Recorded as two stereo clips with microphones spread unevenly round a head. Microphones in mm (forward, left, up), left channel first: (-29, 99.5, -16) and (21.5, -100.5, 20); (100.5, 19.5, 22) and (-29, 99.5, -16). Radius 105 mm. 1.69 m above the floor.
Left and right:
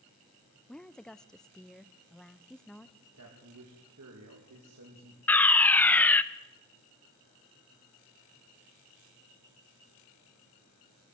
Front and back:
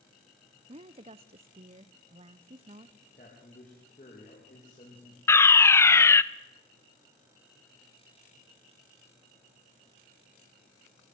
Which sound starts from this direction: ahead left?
A fire alarm, at 5.3 s.